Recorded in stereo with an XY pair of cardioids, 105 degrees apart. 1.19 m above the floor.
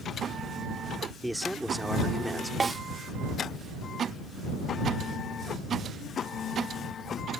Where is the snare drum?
25° right.